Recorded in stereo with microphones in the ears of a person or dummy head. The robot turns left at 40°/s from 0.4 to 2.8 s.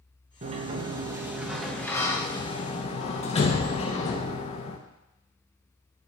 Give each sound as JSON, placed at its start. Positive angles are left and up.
{"t": 0.4, "sound": "a sliding door", "azimuth_deg": -130, "distance_m": 0.7}